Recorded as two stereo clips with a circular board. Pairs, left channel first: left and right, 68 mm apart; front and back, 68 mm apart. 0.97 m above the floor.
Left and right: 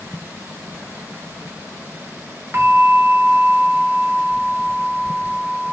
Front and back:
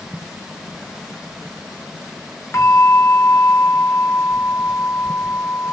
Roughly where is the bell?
Ahead right.